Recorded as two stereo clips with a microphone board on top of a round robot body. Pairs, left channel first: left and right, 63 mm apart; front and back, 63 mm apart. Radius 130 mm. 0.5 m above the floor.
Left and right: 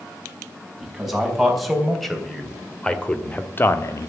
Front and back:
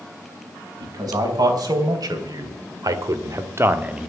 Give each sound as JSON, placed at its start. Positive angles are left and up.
{"t": 0.8, "sound": "a man speaking", "azimuth_deg": -175, "distance_m": 5.0}